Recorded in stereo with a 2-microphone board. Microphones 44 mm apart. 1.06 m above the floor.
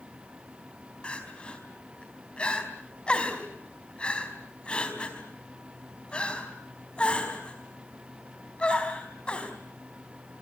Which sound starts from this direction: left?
Crying, at 1.0 s.